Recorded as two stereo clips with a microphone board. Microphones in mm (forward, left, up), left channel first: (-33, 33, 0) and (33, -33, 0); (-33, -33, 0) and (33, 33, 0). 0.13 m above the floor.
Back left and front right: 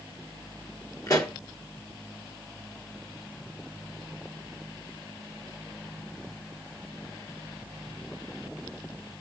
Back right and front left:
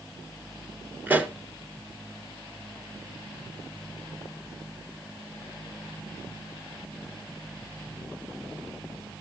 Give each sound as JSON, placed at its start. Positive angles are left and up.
{"t": 1.1, "sound": "a pop", "azimuth_deg": 110, "distance_m": 1.4}